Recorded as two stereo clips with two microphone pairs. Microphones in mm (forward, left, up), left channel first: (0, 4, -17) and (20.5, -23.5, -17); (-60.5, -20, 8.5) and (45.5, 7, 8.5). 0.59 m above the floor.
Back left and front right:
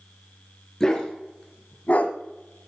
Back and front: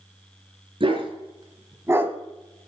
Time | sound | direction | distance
0.8 | a dog barking | 55° left | 3 m